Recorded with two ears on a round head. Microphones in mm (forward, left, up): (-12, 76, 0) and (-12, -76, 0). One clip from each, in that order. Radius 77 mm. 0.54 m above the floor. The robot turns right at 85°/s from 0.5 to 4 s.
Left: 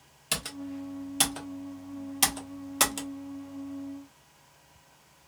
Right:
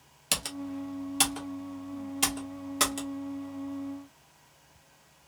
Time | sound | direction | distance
0.3 | typing on a keyboard | 20° right (ahead or behind) | 1.0 m